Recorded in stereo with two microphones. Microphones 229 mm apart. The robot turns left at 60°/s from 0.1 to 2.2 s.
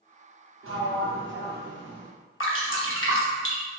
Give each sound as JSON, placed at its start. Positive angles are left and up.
{"t": 0.6, "sound": "a sliding door", "azimuth_deg": -75, "distance_m": 0.6}
{"t": 2.4, "sound": "dripping", "side_deg": 60, "distance_m": 0.7}